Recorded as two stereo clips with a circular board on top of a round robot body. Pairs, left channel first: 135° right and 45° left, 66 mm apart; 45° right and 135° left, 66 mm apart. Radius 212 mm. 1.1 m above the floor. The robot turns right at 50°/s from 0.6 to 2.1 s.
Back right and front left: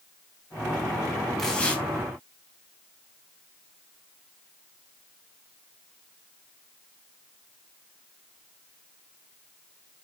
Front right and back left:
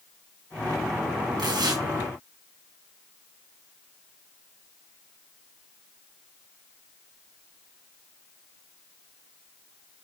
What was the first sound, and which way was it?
Tearing paper, 140° left.